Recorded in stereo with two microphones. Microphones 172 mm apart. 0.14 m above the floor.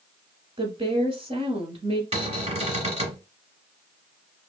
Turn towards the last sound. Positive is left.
turn(degrees=-30)  # may be behind; listen again after turning